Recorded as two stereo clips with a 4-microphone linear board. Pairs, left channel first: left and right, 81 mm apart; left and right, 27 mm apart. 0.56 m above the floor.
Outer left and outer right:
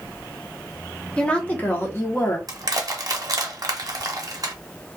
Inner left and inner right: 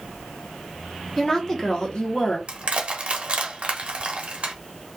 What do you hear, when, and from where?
1.2 s a woman speaking: 15° left (ahead or behind), 0.9 m; by 2.4 s 40° left (ahead or behind), 0.8 m
2.5 s crushing: 45° right (ahead or behind), 0.6 m